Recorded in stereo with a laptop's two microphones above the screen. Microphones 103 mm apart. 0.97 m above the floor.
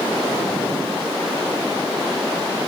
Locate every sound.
Only background noise.